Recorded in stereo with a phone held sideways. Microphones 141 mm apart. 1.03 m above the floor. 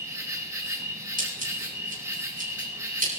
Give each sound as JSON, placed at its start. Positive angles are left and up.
{"t": 0.0, "sound": "an insect", "side_deg": -20, "distance_m": 1.4}
{"t": 1.2, "sound": "scissors", "side_deg": -85, "distance_m": 8.5}